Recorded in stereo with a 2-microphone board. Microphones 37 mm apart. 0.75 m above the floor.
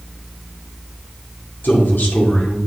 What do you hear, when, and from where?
1.6 s a man speaking: 65° left (ahead or behind), 2 m